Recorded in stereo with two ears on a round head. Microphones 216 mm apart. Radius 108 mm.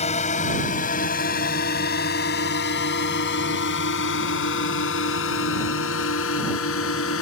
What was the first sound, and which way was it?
A drone, 30° left (ahead or behind).